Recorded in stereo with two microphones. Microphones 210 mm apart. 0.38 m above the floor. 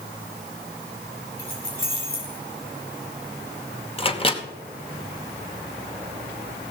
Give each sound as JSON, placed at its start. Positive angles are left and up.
{"t": 1.4, "sound": "keys jangling", "side_deg": -50, "distance_m": 5.0}
{"t": 4.0, "sound": "a microwave", "side_deg": 30, "distance_m": 0.9}